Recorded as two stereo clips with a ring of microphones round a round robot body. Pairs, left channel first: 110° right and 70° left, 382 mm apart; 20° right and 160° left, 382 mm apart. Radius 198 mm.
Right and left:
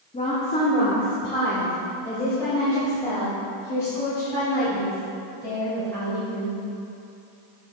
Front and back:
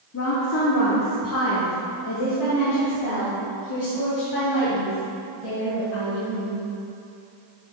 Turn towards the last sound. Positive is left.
turn(degrees=-30)